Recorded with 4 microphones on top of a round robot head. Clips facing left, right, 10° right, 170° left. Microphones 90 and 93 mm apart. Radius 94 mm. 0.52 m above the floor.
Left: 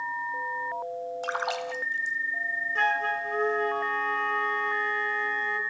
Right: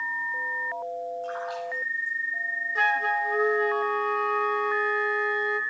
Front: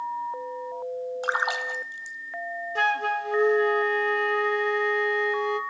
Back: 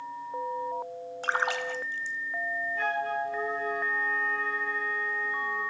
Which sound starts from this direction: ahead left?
A splash, at 1.2 s.